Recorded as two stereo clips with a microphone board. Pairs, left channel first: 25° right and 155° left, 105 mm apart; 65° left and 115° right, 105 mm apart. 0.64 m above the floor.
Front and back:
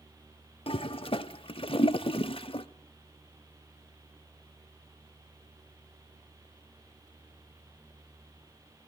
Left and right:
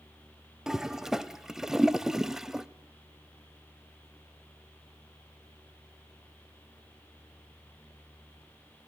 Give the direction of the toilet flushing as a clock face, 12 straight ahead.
1 o'clock.